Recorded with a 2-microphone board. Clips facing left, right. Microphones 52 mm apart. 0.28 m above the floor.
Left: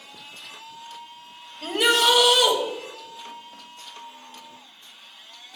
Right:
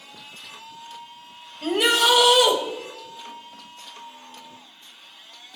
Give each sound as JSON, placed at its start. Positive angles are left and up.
{"t": 1.6, "sound": "a shout", "side_deg": 0, "distance_m": 1.6}